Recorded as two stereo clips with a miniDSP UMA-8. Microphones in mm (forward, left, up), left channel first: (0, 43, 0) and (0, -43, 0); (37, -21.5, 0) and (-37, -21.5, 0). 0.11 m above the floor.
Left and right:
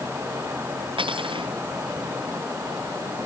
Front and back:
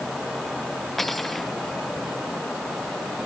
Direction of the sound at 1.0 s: 85° right.